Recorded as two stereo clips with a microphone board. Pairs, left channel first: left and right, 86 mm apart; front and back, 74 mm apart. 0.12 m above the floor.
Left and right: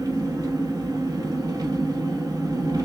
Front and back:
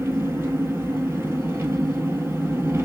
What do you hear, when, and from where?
0.0 s an engine running: 125° right, 1.3 m